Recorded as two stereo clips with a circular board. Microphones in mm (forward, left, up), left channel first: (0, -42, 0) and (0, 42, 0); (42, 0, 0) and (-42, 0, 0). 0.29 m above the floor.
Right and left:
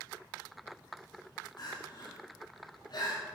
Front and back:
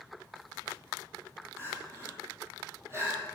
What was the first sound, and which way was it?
Crying, 125° right.